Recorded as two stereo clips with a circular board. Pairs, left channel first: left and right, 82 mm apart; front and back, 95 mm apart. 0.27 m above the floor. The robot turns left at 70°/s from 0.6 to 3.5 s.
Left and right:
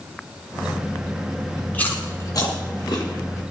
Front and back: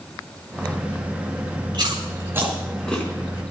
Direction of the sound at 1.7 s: 160° left.